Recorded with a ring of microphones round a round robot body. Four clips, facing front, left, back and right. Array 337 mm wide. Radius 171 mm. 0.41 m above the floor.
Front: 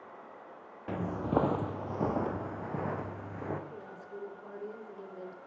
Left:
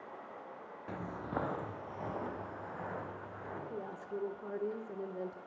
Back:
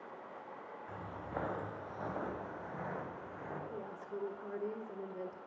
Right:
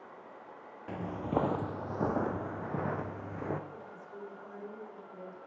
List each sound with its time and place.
0.9 s footsteps: 5° right, 0.9 m; by 3.6 s 60° right, 2 m
3.7 s a woman speaking: 100° left, 1.5 m